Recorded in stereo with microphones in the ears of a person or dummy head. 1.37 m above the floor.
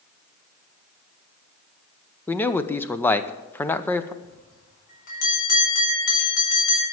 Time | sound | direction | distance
2.3 | a man speaking | 10° left (ahead or behind) | 0.7 m
4.2 | a bell | 50° left (ahead or behind) | 4.5 m